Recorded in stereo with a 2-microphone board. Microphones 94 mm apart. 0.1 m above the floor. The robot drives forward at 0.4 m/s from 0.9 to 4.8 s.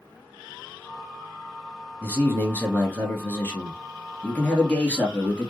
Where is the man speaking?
20° left (ahead or behind), 1.4 m; by 5.5 s 15° left (ahead or behind), 1.9 m.